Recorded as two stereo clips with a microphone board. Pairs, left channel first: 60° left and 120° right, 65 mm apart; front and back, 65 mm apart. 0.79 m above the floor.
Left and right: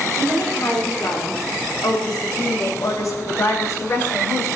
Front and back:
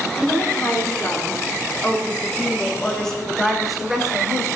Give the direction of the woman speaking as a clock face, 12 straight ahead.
10 o'clock.